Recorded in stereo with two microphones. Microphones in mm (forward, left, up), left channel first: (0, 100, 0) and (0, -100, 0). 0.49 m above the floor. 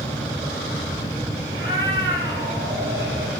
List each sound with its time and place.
1.5 s a cat meowing: 75° right (ahead or behind), 4.5 m; by 3.3 s 70° right (ahead or behind), 3.5 m